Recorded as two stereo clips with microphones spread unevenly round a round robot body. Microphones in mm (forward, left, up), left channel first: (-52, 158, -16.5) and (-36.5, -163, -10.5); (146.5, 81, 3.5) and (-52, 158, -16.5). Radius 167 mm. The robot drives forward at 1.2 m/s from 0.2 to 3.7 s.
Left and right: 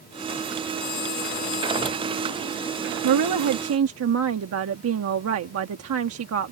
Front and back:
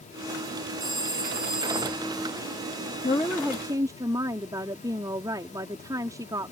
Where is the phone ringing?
105° left; by 2.1 s 110° left.